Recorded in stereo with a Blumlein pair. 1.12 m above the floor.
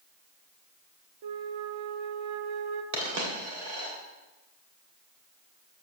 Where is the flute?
55° right, 0.6 m.